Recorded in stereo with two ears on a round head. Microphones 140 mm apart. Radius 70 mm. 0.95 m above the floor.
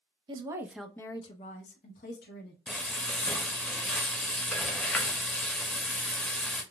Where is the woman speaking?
30° right (ahead or behind), 0.7 m; by 2.6 s 70° left (ahead or behind), 1.3 m.